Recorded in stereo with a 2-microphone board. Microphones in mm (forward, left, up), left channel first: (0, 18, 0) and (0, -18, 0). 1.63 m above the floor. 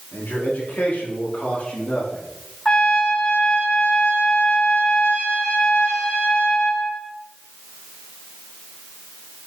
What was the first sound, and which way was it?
A man speaking, 65° left (ahead or behind).